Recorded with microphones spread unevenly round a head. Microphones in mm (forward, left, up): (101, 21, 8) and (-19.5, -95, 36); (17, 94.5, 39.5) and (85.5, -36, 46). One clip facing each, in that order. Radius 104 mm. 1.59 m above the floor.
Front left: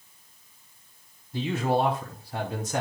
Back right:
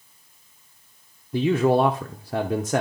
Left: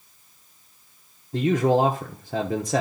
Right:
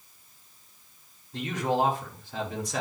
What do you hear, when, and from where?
1.3 s a man speaking: 175° left, 0.9 m